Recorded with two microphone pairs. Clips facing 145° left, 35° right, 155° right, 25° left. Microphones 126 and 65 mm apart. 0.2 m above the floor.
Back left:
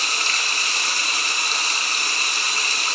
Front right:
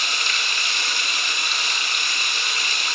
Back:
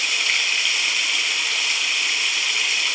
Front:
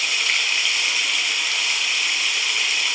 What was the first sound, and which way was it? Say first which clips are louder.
Running water: back left 1 dB, even; 115° left.